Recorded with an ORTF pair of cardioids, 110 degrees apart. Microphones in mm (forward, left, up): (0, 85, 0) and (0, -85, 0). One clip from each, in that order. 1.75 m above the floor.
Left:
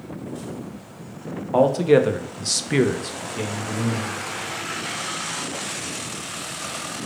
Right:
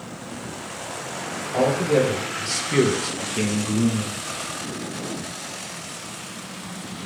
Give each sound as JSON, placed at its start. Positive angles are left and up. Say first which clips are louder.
{"t": 1.5, "sound": "a man speaking", "louder": "left 4 dB", "azimuth_deg": 70, "distance_m": 0.9}